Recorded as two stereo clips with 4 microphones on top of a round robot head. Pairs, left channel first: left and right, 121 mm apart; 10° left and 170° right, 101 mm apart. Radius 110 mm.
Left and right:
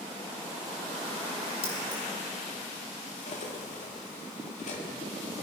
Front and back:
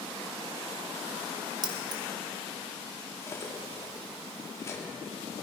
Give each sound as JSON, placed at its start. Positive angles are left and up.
{"t": 1.6, "sound": "keys jangling", "azimuth_deg": 145, "distance_m": 1.6}
{"t": 3.2, "sound": "cutlery clinking", "azimuth_deg": 70, "distance_m": 2.0}